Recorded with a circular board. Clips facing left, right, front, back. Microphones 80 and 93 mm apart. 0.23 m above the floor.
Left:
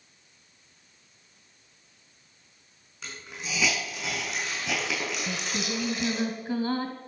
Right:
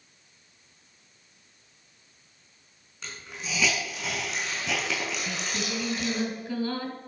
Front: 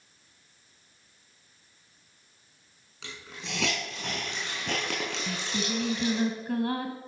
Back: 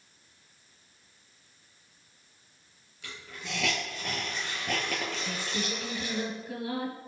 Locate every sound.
3.0 s a hiss: straight ahead, 5 m
5.3 s singing: 25° left, 1.6 m